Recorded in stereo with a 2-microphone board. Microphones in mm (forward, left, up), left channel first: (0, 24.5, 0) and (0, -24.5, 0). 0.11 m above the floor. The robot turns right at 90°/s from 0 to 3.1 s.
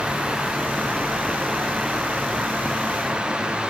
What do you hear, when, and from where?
Only background noise.